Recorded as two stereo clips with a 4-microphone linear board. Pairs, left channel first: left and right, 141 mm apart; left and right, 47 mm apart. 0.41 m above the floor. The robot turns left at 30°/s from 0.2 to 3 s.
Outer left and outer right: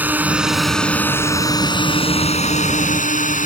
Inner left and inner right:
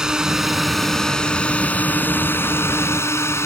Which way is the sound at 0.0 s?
170° right.